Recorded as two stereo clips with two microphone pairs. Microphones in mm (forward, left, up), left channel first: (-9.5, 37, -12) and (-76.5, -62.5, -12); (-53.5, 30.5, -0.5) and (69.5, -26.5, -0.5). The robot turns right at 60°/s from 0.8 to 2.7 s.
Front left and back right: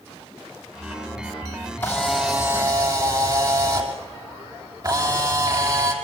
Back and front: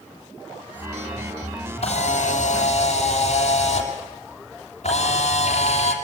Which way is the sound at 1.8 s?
130° left.